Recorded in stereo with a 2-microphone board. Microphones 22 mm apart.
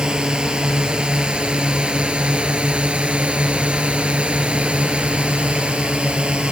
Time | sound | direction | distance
0.0 | a drone | 50° right (ahead or behind) | ?